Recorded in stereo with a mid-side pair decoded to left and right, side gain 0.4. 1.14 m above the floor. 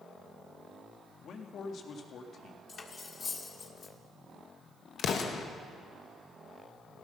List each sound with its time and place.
1.2 s a man speaking: 65° left, 1.9 m
2.7 s cutlery clinking: 45° left, 1.7 m
5.0 s an explosion: 70° left, 1.4 m